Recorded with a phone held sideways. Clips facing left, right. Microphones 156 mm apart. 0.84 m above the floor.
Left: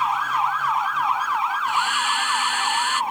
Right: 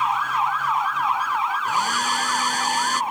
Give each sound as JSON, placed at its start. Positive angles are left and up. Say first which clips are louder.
{"t": 1.6, "sound": "a hair dryer", "louder": "even", "side_deg": -40}